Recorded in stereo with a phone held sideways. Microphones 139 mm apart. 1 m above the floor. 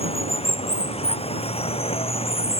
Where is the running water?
45° left (ahead or behind).